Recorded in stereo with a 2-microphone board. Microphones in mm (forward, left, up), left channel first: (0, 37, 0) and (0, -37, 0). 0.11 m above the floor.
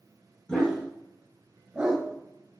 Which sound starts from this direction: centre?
A dog barking, at 0.5 s.